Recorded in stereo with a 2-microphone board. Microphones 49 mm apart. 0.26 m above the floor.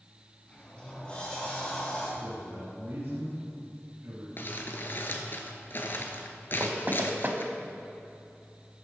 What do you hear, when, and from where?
0.5 s a sliding door: 20° left (ahead or behind), 2.5 m
2.2 s a man speaking: 45° right (ahead or behind), 2.5 m
4.4 s crumpling: 50° left (ahead or behind), 1.1 m
6.6 s knocking: 40° right (ahead or behind), 0.9 m